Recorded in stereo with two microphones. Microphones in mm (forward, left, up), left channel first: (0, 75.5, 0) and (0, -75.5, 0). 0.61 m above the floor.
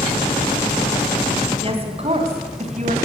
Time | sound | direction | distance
1.6 | a woman speaking | 40° right (ahead or behind) | 4.5 m